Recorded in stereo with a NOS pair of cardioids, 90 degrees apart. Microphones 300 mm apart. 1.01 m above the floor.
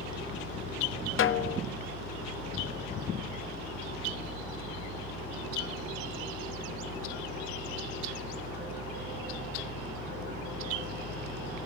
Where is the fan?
30° left, 8.5 m.